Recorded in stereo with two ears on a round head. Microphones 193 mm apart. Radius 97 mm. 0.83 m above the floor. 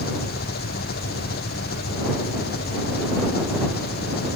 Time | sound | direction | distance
0.0 | an engine running | 45° left (ahead or behind) | ?